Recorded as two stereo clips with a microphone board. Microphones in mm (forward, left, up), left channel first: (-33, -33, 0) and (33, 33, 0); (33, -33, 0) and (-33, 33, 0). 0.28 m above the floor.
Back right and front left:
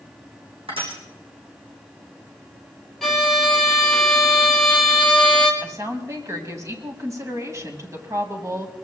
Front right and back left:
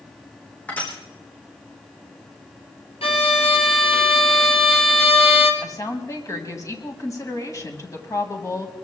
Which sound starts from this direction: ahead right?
A violin, at 3.0 s.